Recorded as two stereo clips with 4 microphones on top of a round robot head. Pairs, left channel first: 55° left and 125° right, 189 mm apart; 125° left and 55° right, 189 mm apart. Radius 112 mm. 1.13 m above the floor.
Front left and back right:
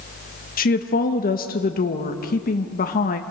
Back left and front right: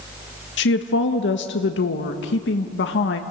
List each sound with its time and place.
0.6 s a woman speaking: 100° left, 1.1 m